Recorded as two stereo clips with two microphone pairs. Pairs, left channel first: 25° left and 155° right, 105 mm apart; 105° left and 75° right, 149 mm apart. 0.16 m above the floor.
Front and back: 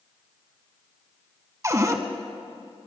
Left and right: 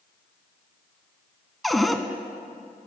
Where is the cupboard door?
170° right, 0.6 m.